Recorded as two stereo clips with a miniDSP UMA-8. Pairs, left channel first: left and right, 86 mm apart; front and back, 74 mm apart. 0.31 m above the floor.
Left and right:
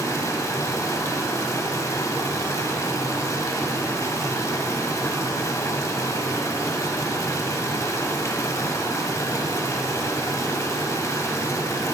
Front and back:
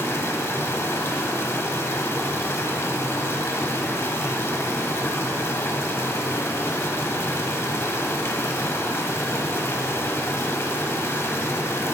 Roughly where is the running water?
Ahead left.